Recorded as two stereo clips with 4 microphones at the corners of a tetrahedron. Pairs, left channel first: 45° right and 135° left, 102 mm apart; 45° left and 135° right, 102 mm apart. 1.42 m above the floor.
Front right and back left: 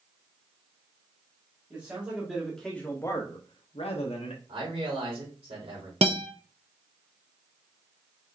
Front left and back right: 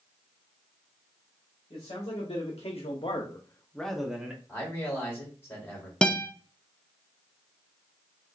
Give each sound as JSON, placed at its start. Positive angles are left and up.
{"t": 1.7, "sound": "a man speaking", "azimuth_deg": 60, "distance_m": 2.0}
{"t": 4.5, "sound": "a man speaking", "azimuth_deg": 110, "distance_m": 3.0}
{"t": 6.0, "sound": "a guitar", "azimuth_deg": 125, "distance_m": 0.6}